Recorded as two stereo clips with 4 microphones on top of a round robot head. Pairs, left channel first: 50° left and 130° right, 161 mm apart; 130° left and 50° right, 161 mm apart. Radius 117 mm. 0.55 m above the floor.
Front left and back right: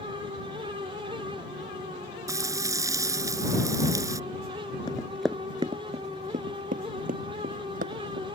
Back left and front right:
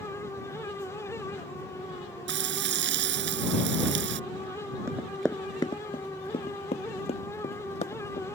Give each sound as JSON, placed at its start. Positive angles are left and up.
{"t": 2.3, "sound": "frying", "azimuth_deg": -60}
{"t": 4.9, "sound": "running footsteps", "azimuth_deg": 10}